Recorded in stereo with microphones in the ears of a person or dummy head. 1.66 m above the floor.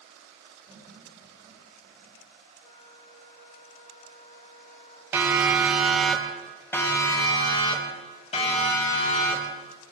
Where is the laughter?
15° right (ahead or behind), 10 m; by 2.2 s 20° right (ahead or behind), 10 m.